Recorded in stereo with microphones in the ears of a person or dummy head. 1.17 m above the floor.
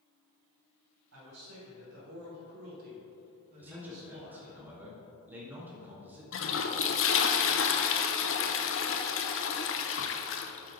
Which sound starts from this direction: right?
A man speaking, at 1.1 s.